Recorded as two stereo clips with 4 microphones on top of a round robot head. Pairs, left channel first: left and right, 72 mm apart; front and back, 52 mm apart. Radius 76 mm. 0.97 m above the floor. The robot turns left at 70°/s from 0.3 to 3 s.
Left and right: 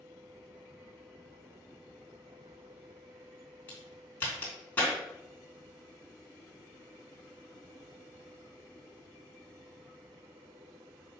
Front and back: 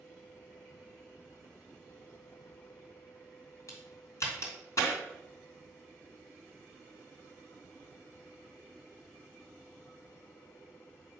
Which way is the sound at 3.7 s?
20° left.